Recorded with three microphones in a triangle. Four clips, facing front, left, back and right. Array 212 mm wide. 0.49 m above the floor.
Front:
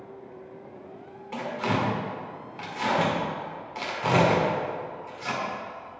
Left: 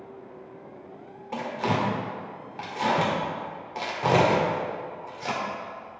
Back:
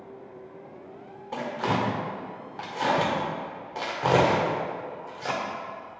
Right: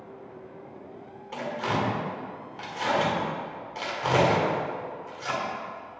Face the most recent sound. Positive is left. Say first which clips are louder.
# left 2 dB, back 1 dB
turn(degrees=140)